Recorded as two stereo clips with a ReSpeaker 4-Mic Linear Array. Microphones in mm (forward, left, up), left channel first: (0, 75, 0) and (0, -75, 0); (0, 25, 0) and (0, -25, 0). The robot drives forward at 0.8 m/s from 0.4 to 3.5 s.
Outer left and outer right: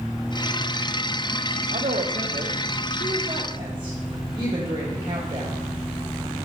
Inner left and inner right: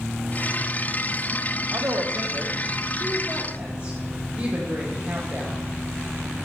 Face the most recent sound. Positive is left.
turn(degrees=-30)  # may be behind; listen again after turning